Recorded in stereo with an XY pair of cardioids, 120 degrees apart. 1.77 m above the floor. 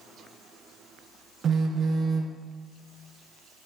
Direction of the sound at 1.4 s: 45° right.